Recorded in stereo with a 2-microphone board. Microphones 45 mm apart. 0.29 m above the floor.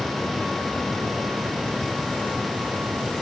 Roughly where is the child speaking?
No child speaking in this recording.